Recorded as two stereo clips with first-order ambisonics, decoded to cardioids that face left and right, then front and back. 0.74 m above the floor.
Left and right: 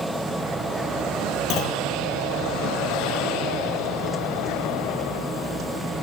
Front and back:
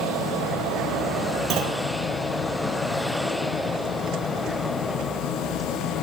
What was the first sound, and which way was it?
A clunk, 130° left.